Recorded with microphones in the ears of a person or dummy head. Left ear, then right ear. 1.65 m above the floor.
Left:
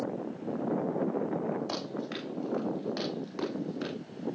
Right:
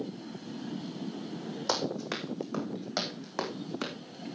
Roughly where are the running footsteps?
Right.